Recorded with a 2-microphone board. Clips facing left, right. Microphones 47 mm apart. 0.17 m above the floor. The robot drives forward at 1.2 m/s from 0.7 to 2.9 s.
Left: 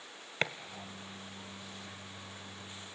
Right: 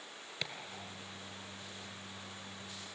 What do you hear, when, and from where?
0.4 s chopping: 50° left (ahead or behind), 0.9 m